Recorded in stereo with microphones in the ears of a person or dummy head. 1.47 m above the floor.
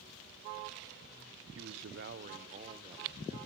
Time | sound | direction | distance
1.6 | a man speaking | 75° right (ahead or behind) | 0.8 m